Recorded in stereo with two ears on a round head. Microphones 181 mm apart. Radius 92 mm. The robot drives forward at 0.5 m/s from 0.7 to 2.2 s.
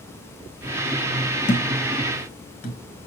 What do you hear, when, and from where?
1.5 s a thud: 35° left (ahead or behind), 1.7 m; by 2.8 s 40° left (ahead or behind), 1.5 m